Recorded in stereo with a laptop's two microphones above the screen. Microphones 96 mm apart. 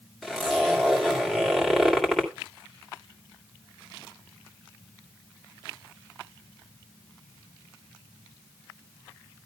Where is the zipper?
5° left (ahead or behind), 2 m.